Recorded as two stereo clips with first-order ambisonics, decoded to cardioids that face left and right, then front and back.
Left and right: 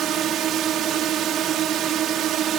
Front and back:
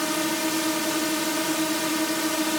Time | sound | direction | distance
0.0 | a drone | 90° right | ?